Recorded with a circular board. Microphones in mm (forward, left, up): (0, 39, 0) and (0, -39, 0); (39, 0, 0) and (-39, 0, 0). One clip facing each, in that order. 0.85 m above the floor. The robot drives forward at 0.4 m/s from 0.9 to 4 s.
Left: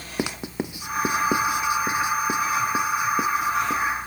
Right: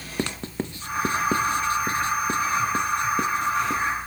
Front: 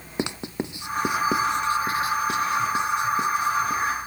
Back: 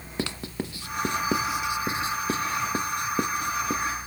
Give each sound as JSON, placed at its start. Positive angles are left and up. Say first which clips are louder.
{"t": 0.2, "sound": "writing", "louder": "left 1 dB, front 3 dB", "azimuth_deg": 30, "distance_m": 0.6}